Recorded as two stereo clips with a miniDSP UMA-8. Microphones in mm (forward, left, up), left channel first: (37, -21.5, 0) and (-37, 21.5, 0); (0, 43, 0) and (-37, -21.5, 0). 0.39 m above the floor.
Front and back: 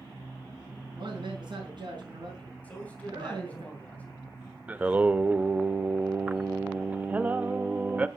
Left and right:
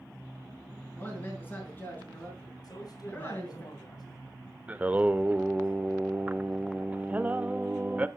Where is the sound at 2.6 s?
40° left, 3 m.